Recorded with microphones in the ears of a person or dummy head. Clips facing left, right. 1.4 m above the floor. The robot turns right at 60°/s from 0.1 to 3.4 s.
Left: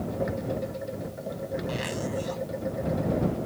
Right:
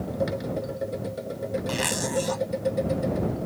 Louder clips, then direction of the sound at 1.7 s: Right 3 dB; 125° right.